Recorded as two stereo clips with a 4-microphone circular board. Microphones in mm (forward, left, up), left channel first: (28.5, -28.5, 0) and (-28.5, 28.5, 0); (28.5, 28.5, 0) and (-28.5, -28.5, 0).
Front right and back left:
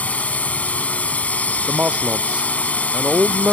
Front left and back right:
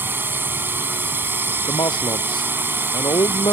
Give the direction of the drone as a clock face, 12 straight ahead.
3 o'clock.